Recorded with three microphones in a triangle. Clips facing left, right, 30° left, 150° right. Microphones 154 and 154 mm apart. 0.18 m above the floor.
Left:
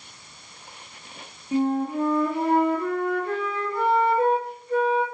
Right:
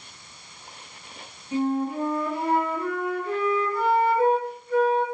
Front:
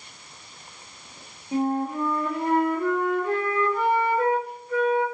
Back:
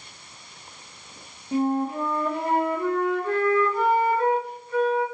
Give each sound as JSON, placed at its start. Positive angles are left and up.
{"t": 1.5, "sound": "a flute", "azimuth_deg": 150, "distance_m": 1.5}